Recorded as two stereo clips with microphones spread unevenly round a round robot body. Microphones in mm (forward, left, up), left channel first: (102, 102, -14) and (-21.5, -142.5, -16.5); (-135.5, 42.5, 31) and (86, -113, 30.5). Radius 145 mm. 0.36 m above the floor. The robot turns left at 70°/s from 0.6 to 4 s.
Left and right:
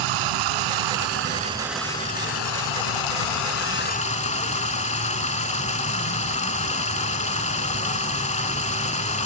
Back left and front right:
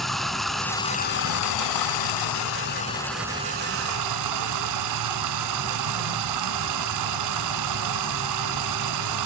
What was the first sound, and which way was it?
Running water, 125° right.